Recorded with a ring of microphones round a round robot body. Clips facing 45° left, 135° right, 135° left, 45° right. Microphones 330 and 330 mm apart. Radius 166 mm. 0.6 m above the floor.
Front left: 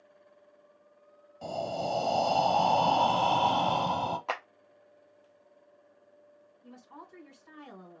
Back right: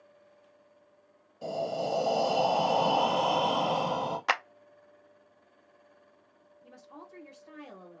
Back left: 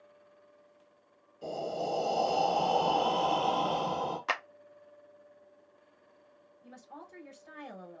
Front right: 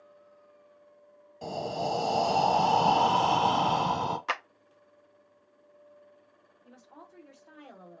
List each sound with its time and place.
1.4 s breathing: 30° right, 1.5 m
4.3 s a clap: 135° right, 0.6 m
6.6 s a woman speaking: 130° left, 3 m